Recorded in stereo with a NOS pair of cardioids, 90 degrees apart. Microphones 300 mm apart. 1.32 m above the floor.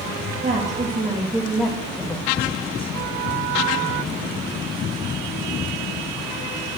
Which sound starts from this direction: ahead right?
A woman speaking, at 0.4 s.